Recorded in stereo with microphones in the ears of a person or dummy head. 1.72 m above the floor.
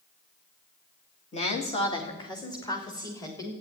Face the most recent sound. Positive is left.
turn(degrees=20)  # may be behind; listen again after turning